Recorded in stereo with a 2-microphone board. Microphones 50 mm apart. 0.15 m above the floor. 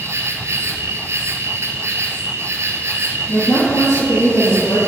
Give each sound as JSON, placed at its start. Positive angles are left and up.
{"t": 0.0, "sound": "an insect", "side_deg": -65, "distance_m": 1.3}
{"t": 3.3, "sound": "a woman speaking", "side_deg": 75, "distance_m": 4.5}